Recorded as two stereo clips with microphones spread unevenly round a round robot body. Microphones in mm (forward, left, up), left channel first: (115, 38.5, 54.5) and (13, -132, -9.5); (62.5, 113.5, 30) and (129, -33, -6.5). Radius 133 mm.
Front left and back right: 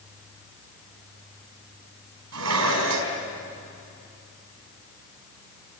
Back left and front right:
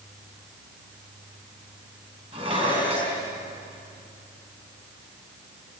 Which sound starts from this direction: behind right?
Dishes clattering, at 2.3 s.